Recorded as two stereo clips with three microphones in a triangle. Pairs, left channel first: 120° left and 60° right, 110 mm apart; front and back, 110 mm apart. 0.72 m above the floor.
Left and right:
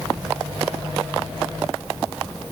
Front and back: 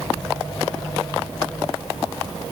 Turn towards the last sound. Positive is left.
No sound to turn to.